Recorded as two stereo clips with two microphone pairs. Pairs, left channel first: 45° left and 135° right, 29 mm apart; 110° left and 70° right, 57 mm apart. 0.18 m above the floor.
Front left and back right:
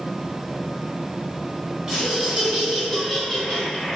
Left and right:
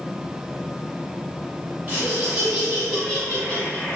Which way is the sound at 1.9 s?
95° right.